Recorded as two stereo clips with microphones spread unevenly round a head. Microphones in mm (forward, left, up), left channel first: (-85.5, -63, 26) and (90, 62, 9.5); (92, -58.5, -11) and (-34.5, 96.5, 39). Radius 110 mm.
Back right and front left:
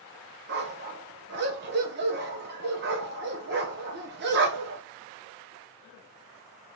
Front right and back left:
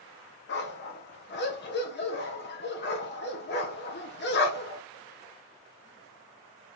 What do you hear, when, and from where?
0.5 s a dog barking: 10° right, 0.9 m